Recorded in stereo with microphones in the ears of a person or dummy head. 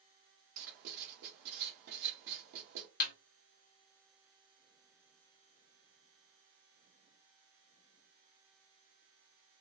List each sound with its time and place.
0.6 s writing: 55° right (ahead or behind), 1.1 m
3.0 s a snare drum: 50° left (ahead or behind), 1.1 m